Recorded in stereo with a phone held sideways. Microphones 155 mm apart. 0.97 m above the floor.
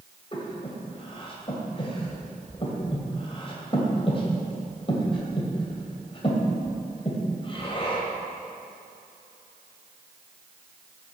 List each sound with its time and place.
0.3 s breathing: 35° left (ahead or behind), 2 m